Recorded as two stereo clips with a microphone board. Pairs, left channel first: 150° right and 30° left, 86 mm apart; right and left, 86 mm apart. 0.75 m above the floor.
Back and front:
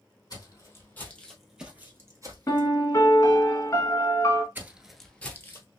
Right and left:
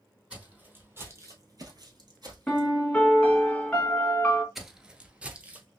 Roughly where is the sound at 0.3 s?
Behind.